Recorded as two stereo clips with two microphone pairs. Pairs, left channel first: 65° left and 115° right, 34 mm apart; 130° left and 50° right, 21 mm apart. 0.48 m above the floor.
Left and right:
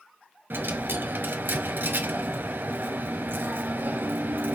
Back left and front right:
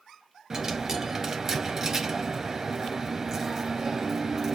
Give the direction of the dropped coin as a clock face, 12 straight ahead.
4 o'clock.